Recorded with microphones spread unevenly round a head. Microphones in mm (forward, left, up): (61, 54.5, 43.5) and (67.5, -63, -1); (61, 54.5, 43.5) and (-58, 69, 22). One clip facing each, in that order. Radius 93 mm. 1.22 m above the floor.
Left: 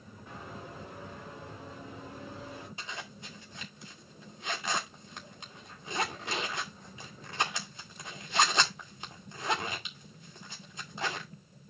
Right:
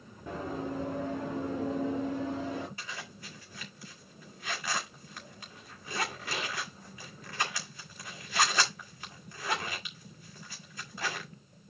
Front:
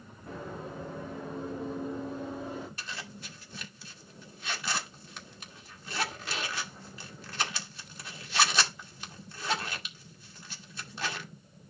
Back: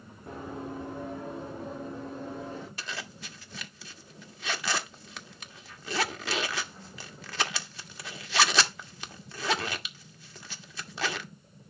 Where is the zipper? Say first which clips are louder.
Left 1 dB, back 2 dB; 165° left, 1.5 m.